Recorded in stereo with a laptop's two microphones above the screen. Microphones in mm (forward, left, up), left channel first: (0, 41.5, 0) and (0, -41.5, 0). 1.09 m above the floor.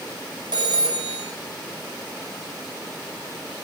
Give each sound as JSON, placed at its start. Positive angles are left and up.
{"t": 0.5, "sound": "a phone ringing", "side_deg": -80, "distance_m": 2.5}